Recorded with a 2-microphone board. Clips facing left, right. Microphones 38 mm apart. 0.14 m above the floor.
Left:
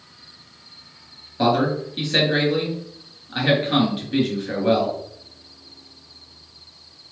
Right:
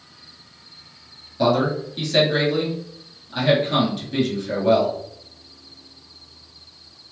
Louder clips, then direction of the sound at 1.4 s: Even; 25° left (ahead or behind).